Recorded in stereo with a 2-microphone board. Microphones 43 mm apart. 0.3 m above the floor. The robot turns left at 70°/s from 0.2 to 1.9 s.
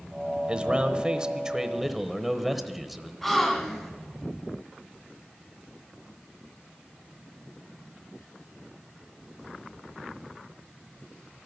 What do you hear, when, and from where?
0.5 s a man speaking: 25° right (ahead or behind), 1.0 m; by 3.1 s 5° right (ahead or behind), 1.0 m
3.2 s a gasp: 5° left (ahead or behind), 2 m